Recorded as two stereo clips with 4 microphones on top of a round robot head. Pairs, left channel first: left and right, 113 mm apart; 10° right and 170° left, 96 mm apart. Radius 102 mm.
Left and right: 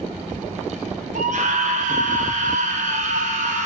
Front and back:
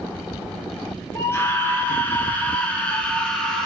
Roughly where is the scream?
Right.